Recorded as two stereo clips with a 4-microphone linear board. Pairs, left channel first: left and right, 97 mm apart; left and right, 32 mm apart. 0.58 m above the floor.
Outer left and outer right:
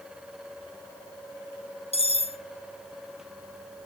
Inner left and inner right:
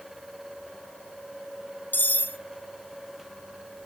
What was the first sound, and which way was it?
Cutlery clinking, 75° left (ahead or behind).